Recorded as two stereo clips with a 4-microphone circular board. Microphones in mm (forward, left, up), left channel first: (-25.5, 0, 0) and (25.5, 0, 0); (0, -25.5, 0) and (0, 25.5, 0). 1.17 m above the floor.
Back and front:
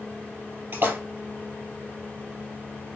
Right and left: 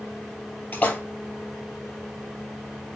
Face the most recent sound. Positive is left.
turn(degrees=-35)